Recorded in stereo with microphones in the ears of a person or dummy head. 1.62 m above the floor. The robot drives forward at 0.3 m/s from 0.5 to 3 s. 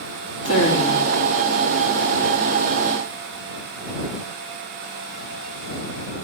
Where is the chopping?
I don't hear chopping.